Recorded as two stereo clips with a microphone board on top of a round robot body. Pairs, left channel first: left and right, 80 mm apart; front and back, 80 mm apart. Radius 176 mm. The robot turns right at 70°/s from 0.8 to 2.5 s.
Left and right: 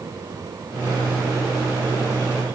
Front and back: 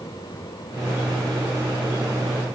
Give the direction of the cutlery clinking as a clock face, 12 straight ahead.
No cutlery clinking in this recording.